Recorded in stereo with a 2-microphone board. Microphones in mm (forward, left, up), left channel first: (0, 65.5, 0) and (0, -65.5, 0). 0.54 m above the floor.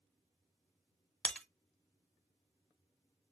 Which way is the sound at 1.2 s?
10° left (ahead or behind).